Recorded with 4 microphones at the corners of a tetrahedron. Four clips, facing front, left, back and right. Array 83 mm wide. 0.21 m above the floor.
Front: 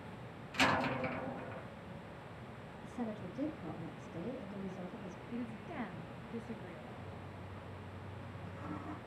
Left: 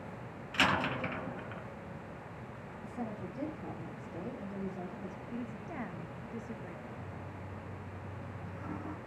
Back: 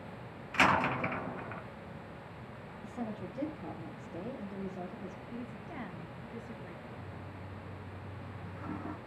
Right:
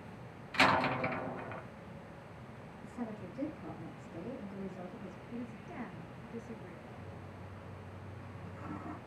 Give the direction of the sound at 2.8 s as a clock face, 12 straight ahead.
7 o'clock.